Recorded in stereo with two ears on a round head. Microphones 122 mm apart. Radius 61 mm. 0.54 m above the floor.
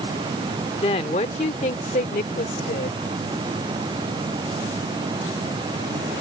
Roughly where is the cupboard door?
I don't hear a cupboard door.